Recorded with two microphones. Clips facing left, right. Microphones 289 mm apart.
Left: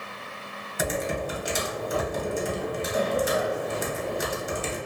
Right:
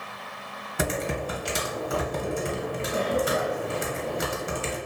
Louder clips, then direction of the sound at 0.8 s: Even; 70° right (ahead or behind).